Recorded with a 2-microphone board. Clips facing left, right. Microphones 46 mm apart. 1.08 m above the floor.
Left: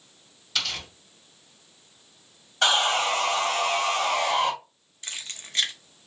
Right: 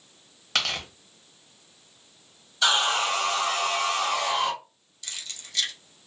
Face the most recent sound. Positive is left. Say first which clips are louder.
# left 2 dB
turn(degrees=35)  # may be behind; listen again after turning